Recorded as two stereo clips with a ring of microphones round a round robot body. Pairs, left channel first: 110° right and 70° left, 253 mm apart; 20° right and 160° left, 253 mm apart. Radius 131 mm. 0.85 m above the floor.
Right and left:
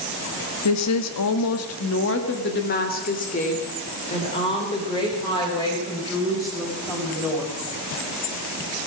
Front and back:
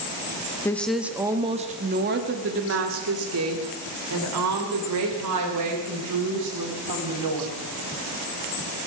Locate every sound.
0.7 s a woman speaking: 105° right, 1.3 m; by 7.5 s 170° left, 5.5 m